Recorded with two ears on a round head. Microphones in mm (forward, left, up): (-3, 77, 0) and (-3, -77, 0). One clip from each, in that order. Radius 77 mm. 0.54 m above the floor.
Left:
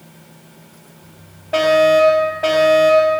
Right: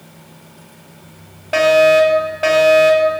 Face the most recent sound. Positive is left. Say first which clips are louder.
# right 2 dB
turn(degrees=-60)  # may be behind; listen again after turning